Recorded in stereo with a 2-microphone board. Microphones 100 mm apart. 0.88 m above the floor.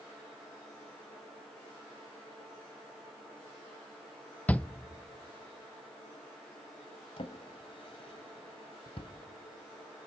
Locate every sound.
4.5 s a shout: 15° left (ahead or behind), 0.5 m
7.2 s a drawer: 70° left (ahead or behind), 1.5 m